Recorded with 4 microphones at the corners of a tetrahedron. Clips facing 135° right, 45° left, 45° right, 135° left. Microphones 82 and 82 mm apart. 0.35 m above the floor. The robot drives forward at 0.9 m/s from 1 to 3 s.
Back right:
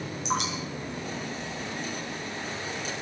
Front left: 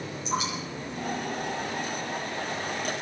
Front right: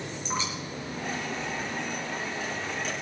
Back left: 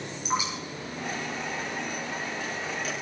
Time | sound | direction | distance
0.2 | dripping | 150° right | 6 m